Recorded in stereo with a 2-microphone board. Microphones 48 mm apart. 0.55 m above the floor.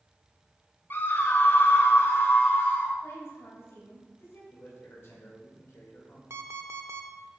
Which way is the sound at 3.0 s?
65° left (ahead or behind).